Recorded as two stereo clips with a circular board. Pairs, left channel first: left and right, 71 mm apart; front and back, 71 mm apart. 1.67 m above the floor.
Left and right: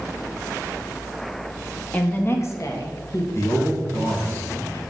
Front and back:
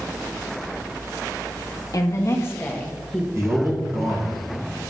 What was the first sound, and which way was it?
A woman speaking, 20° left.